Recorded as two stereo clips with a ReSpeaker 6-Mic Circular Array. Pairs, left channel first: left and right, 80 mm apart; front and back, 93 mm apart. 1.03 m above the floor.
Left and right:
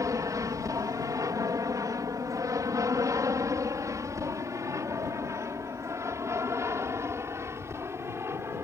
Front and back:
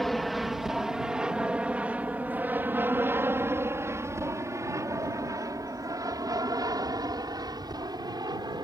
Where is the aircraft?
90° right; by 8.6 s 145° right.